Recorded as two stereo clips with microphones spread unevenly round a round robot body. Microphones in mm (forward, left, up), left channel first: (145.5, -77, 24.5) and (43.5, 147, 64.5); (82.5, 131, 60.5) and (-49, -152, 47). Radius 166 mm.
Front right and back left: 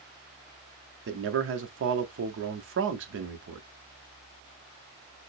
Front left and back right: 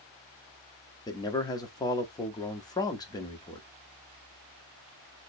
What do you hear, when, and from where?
1.1 s a man speaking: 140° left, 0.8 m